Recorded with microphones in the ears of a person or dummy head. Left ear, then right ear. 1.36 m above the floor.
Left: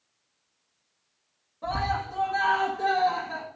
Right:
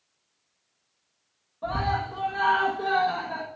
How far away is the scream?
About 1.7 m.